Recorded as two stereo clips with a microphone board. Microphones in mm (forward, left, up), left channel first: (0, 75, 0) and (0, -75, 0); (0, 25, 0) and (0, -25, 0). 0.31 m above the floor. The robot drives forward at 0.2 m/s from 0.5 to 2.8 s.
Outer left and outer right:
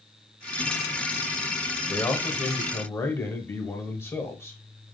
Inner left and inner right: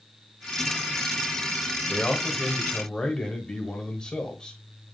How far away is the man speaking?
About 0.9 m.